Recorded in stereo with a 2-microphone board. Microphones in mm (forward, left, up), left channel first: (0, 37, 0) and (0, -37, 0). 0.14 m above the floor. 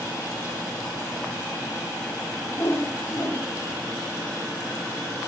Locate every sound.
2.5 s a whoosh: 35° left (ahead or behind), 6 m